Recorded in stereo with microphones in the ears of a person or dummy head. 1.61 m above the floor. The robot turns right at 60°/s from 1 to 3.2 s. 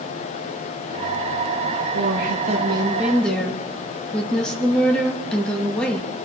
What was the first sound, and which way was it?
A woman speaking, 70° right.